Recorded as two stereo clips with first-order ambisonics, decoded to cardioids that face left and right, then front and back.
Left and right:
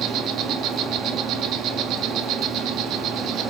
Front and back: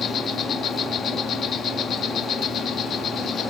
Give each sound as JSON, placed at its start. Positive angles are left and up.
{"t": 0.0, "sound": "an insect", "azimuth_deg": -55, "distance_m": 0.9}